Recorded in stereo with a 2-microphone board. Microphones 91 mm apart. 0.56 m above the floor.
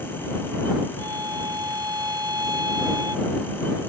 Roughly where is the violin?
Right.